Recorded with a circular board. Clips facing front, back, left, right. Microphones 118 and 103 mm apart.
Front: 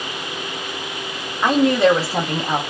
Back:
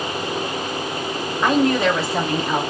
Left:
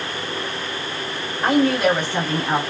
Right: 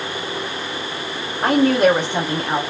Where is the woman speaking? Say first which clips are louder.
Front 3 dB, right 3 dB; 65° right, 1.2 m; by 2.6 s 20° left, 0.8 m.